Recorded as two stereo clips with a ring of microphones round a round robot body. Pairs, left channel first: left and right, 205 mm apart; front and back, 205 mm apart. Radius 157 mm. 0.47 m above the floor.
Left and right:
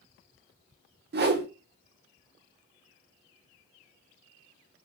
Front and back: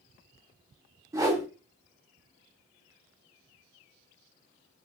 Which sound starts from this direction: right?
A whoosh, at 1.1 s.